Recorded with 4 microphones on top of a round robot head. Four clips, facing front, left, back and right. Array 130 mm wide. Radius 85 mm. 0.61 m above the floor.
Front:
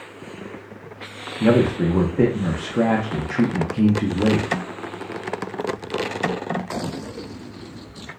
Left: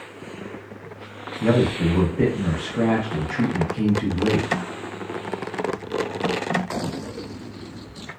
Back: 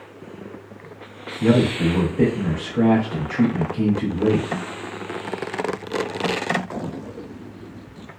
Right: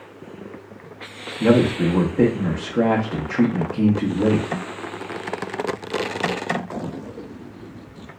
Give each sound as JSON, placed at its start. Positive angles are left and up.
{"t": 1.4, "sound": "a man speaking", "azimuth_deg": -45, "distance_m": 0.7}